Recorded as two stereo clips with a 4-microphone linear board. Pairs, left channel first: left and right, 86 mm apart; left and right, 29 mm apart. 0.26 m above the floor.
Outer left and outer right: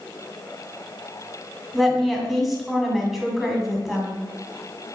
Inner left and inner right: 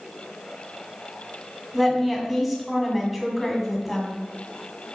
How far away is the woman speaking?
About 2.0 m.